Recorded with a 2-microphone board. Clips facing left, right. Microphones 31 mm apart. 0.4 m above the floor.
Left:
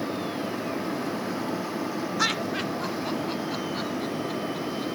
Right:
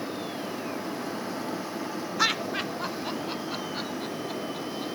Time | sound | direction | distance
2.2 | laughter | 10° right (ahead or behind) | 0.8 m